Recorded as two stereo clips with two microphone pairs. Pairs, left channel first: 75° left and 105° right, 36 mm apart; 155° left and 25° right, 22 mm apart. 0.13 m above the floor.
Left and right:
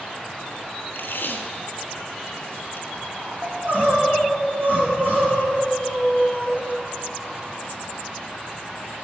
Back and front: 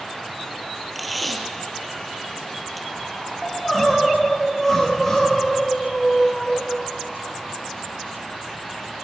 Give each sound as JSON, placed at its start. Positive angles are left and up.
{"t": 0.9, "sound": "tape being pulled", "azimuth_deg": 60, "distance_m": 1.2}
{"t": 3.4, "sound": "crying", "azimuth_deg": -135, "distance_m": 5.5}